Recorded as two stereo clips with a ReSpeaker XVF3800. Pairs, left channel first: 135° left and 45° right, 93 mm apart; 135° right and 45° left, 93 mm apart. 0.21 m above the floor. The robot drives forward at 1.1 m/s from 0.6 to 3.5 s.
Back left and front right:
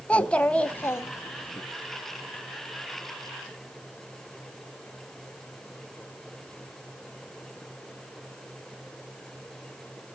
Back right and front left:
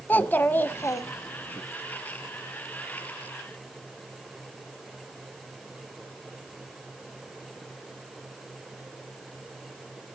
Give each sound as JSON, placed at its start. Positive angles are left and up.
{"t": 0.1, "sound": "a child speaking", "azimuth_deg": -170, "distance_m": 0.7}